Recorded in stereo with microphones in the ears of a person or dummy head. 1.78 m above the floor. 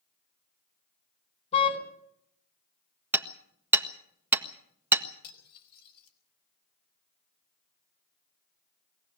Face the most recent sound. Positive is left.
turn(degrees=55)  # may be behind; listen again after turning